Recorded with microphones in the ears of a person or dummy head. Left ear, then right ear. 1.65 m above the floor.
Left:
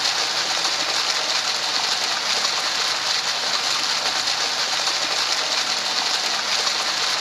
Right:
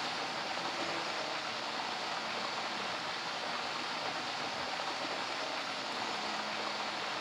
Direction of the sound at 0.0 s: 80° left.